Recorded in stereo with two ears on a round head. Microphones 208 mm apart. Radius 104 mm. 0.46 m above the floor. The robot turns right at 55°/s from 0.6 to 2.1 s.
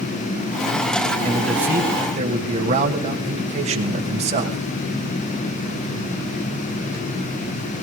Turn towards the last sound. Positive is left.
turn(degrees=-145)